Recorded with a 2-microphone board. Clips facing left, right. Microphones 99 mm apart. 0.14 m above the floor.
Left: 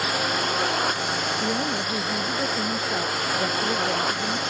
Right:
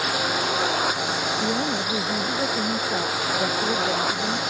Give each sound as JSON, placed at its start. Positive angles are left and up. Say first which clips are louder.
{"t": 0.0, "sound": "a drone", "louder": "right 1 dB", "side_deg": -5}
{"t": 1.4, "sound": "a woman speaking", "louder": "right 1 dB", "side_deg": -5}